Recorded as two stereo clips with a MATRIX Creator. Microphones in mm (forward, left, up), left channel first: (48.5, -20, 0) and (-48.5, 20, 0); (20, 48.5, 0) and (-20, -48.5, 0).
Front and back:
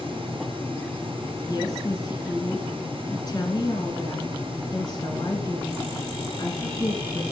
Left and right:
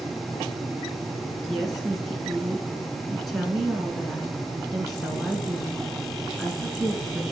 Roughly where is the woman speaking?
Ahead right.